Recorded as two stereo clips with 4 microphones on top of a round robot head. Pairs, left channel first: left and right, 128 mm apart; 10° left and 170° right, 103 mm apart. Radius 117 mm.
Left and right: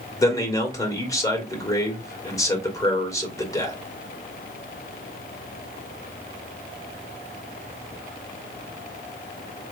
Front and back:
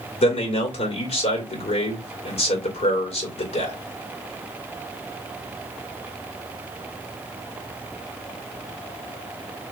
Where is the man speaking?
25° left, 2 m.